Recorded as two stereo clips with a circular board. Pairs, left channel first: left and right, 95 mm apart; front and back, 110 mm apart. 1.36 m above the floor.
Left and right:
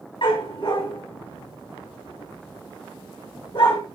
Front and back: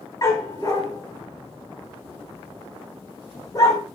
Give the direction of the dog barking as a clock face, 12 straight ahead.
10 o'clock.